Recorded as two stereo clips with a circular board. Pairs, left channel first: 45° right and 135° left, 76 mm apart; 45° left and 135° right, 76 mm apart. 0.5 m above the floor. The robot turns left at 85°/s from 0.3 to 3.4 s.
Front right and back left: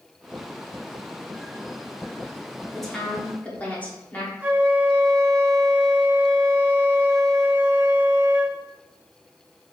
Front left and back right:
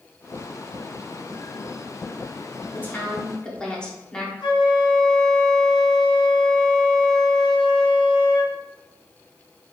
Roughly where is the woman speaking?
Ahead left.